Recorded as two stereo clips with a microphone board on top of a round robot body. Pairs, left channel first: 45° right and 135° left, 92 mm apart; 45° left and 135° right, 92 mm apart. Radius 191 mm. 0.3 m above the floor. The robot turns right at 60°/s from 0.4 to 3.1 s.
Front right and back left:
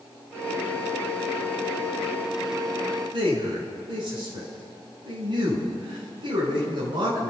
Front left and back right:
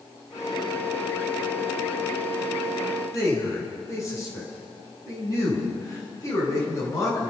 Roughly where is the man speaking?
Left.